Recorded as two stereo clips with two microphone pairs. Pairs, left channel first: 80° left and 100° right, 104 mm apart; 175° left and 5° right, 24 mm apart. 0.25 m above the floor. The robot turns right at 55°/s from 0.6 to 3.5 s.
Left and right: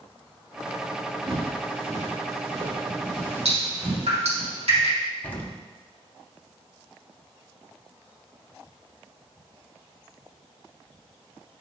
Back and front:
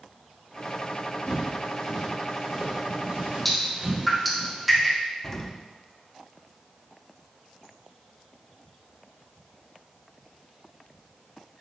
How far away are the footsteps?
About 2 m.